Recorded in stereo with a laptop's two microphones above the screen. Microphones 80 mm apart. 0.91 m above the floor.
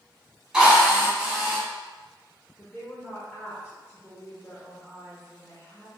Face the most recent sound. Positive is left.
turn(degrees=25)  # may be behind; listen again after turning